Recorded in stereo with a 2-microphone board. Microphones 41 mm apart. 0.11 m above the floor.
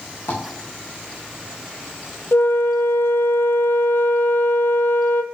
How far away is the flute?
About 0.6 m.